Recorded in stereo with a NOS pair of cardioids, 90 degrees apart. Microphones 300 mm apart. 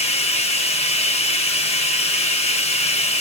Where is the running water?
20° left, 0.7 m.